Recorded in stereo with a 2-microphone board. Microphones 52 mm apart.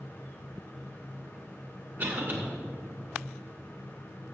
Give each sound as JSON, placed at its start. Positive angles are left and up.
{"t": 2.0, "sound": "a cough", "side_deg": -35, "distance_m": 2.5}